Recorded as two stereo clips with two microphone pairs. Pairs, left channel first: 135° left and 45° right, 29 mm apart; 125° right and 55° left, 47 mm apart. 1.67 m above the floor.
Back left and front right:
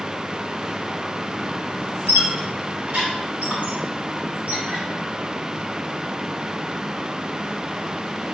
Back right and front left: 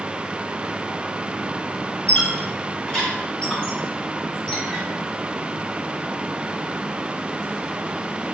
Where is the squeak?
55° right, 3 m.